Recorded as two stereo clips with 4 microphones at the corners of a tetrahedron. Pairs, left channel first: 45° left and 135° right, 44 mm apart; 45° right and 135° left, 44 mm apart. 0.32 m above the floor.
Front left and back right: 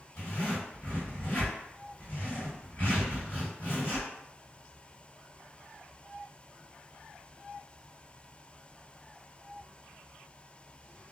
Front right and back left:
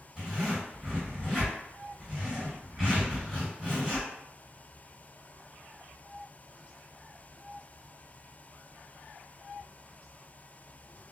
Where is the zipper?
65° left, 1.6 m.